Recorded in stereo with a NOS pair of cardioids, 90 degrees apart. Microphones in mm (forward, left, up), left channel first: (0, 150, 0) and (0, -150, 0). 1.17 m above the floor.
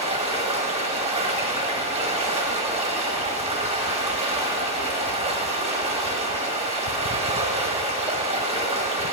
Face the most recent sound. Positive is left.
turn(degrees=-20)